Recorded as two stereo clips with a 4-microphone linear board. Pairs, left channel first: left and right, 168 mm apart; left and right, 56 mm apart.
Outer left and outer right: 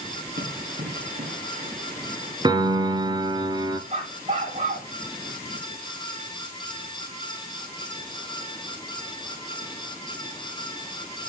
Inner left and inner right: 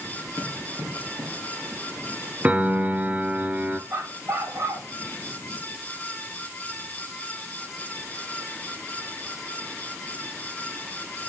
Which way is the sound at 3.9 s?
45° right (ahead or behind).